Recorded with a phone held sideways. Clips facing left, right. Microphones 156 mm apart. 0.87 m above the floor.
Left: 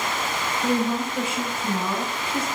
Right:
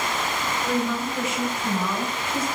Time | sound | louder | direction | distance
0.6 | a woman speaking | left 3 dB | 30° left (ahead or behind) | 0.9 m